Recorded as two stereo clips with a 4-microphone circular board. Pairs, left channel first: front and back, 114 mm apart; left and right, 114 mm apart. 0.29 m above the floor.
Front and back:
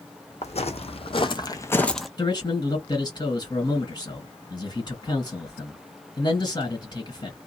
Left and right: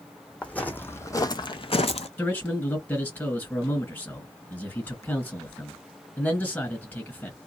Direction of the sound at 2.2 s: 25° left.